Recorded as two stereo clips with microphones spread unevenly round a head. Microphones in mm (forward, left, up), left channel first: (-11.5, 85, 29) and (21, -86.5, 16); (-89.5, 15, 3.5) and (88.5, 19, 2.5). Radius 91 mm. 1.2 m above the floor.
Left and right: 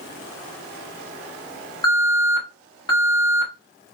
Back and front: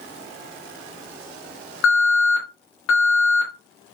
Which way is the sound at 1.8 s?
170° left.